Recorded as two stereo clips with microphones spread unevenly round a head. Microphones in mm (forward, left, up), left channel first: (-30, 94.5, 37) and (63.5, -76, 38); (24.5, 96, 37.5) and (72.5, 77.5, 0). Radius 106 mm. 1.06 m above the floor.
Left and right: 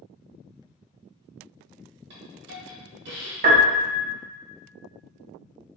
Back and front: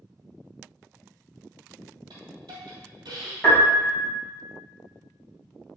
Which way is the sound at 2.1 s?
70° right.